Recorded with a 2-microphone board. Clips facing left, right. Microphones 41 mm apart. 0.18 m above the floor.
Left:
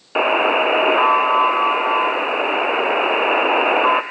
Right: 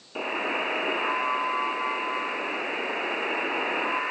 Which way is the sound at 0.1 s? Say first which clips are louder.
Left 12 dB; 60° left (ahead or behind).